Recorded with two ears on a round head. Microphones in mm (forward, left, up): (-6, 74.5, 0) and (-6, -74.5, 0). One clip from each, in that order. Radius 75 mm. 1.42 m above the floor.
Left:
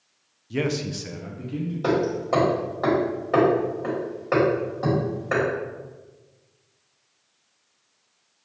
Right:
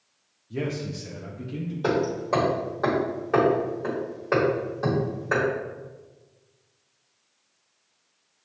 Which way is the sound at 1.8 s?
Centre (ahead or behind).